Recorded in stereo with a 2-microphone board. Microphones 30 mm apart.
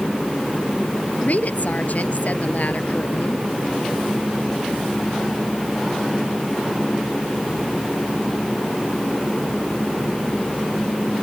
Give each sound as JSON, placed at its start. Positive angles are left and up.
{"t": 1.2, "sound": "a woman speaking", "side_deg": 60}